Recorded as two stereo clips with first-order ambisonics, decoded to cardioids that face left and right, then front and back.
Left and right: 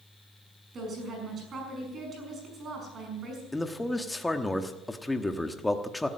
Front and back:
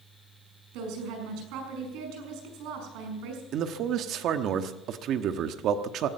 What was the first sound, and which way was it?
A woman speaking, 155° right.